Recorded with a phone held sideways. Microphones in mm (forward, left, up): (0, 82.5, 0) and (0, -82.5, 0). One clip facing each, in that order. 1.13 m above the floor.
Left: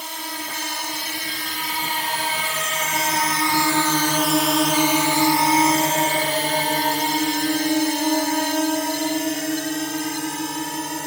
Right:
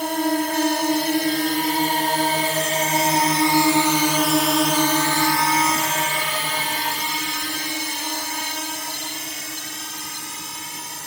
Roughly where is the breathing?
No breathing in this recording.